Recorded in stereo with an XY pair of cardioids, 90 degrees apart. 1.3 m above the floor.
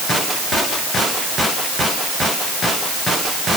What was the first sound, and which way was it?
Only background noise.